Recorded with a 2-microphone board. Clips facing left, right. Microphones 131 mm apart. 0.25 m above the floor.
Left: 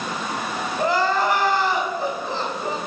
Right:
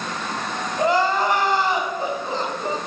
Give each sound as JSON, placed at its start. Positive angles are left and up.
{"t": 0.8, "sound": "crying", "side_deg": -20, "distance_m": 1.9}